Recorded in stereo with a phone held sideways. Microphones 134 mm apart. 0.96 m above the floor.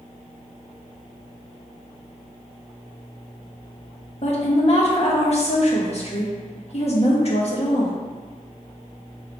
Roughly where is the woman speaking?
Left.